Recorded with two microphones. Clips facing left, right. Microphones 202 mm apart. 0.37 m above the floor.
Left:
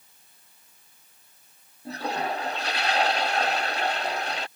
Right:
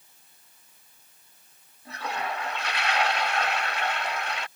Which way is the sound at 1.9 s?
35° left (ahead or behind).